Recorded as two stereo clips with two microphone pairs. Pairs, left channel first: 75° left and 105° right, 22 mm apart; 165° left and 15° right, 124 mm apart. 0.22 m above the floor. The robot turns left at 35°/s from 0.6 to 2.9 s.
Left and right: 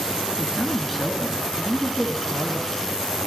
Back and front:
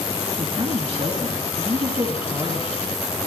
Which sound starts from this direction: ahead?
A man speaking, at 0.4 s.